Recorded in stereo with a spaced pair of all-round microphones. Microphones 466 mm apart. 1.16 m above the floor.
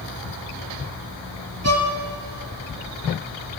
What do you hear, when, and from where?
1.6 s a violin: 30° right (ahead or behind), 1.2 m